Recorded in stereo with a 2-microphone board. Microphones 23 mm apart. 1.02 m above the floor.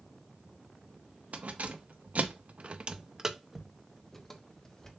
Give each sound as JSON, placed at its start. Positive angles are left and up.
{"t": 1.3, "sound": "keys jangling", "side_deg": -80, "distance_m": 1.1}